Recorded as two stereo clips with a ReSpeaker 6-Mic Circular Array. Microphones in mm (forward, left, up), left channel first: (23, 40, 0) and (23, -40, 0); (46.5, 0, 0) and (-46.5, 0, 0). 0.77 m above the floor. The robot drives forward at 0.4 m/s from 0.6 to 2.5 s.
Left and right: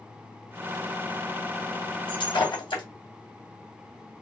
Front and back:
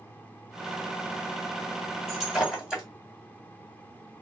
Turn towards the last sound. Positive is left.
turn(degrees=95)